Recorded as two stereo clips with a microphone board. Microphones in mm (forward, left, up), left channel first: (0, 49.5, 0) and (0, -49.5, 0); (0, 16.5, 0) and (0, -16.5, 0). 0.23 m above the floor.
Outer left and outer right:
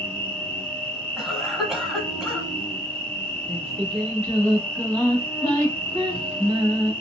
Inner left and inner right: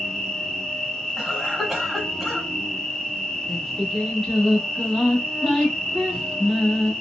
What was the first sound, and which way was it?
An insect, 10° left (ahead or behind).